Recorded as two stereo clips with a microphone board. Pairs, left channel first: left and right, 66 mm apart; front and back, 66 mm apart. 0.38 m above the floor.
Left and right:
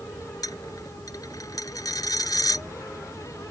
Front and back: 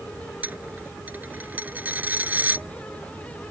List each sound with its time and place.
0.4 s a dropped coin: 115° left